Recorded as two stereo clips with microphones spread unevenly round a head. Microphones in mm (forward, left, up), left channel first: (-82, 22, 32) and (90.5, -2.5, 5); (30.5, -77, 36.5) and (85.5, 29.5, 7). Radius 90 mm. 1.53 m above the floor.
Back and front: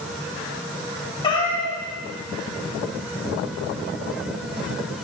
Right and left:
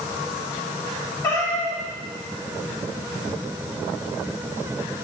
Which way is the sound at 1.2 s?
160° right.